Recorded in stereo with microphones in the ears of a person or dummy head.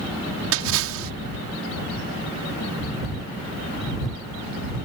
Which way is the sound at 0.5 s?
70° right (ahead or behind).